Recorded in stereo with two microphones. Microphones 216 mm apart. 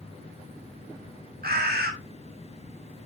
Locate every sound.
1.4 s a bird: 45° right (ahead or behind), 2 m